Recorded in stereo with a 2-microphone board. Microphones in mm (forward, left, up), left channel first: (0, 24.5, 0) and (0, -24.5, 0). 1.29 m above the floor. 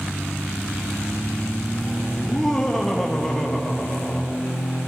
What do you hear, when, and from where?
2.2 s laughter: 5° left (ahead or behind), 0.6 m